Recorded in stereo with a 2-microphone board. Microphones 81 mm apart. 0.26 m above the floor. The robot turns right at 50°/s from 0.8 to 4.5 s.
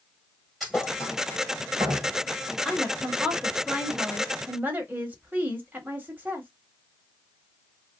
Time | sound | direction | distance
0.6 | a thud | centre (ahead or behind) | 1.6 m
2.6 | a woman speaking | 5° right (ahead or behind) | 1.0 m